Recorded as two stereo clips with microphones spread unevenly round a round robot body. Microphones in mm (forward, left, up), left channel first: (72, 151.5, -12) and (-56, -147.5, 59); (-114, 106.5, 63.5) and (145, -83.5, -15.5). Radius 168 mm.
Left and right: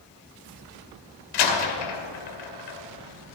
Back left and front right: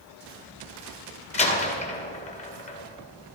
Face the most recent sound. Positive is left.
turn(degrees=70)